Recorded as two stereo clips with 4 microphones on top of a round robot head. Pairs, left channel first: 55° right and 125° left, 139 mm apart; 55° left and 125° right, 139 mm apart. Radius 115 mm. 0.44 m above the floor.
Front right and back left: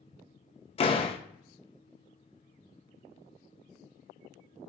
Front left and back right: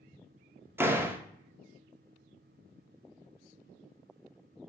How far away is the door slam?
About 0.7 m.